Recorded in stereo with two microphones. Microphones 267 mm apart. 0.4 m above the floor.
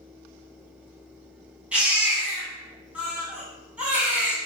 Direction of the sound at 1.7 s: 5° right (ahead or behind).